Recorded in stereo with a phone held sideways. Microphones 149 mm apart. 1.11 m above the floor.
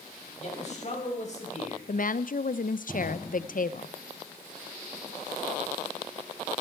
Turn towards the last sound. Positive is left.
turn(degrees=60)  # may be behind; listen again after turning